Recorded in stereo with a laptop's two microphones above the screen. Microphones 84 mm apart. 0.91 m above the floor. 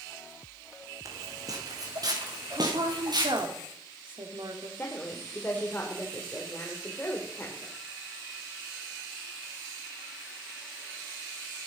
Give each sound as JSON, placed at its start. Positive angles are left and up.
{"t": 1.1, "sound": "footsteps", "side_deg": -45, "distance_m": 3.0}
{"t": 2.5, "sound": "a woman speaking", "side_deg": -75, "distance_m": 2.5}
{"t": 4.8, "sound": "a woman speaking", "side_deg": 20, "distance_m": 3.0}